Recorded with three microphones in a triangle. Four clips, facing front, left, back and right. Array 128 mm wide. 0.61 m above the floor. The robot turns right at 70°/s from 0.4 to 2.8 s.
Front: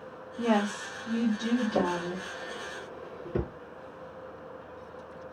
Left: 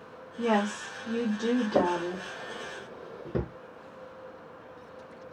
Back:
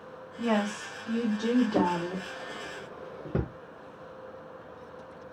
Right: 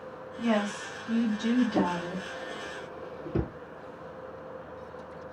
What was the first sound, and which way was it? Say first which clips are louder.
A woman speaking: left 1 dB, front 1 dB; 40° left.